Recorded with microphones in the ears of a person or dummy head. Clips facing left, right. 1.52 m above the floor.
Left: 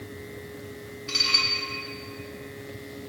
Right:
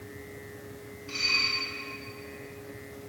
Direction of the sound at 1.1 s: 75° left (ahead or behind).